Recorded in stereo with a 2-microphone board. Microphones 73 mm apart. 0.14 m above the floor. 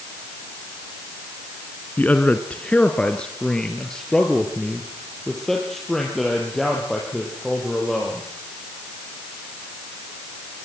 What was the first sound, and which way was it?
A man speaking, 25° left (ahead or behind).